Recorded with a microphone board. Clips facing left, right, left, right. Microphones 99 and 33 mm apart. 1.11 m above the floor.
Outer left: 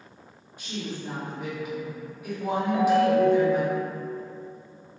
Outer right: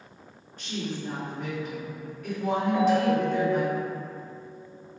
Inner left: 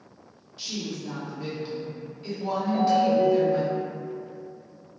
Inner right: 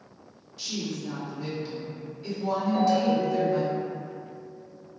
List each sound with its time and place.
0.6 s a woman speaking: 10° left (ahead or behind), 1.7 m
2.7 s a ringtone: 5° left (ahead or behind), 0.9 m